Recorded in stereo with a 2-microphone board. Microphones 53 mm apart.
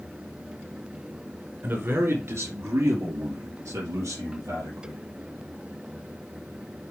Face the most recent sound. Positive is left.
turn(degrees=-80)